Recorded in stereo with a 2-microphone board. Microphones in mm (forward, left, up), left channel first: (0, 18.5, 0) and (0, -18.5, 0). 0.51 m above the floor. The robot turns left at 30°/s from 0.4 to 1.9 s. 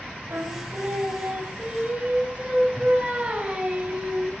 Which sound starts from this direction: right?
Singing, at 0.3 s.